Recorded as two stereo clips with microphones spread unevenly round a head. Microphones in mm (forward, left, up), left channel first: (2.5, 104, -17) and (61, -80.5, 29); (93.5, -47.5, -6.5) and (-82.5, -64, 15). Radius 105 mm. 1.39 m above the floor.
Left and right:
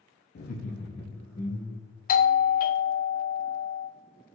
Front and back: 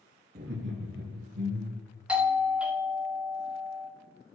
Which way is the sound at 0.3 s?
135° left.